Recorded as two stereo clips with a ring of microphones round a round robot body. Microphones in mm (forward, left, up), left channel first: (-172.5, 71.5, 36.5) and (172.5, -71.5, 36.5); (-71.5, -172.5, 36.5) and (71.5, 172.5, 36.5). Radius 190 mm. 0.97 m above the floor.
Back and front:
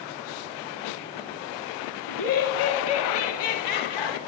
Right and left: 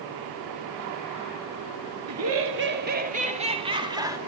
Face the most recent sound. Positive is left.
turn(degrees=150)